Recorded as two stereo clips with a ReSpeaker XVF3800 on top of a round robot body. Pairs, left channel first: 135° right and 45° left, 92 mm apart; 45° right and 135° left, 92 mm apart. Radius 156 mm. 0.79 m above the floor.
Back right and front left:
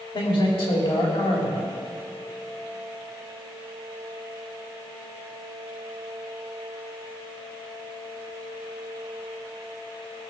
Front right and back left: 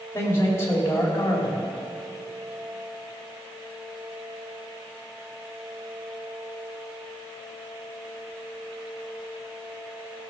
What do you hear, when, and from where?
0.1 s a man speaking: 110° right, 3.5 m